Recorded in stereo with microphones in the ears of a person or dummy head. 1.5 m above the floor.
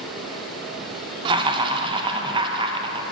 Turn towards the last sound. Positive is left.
turn(degrees=-30)  # may be behind; listen again after turning